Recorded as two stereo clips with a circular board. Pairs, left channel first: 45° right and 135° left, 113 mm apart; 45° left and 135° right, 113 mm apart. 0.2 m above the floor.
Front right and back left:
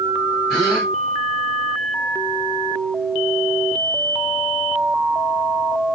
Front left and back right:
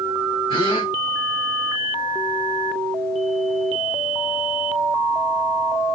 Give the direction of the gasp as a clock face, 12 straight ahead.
11 o'clock.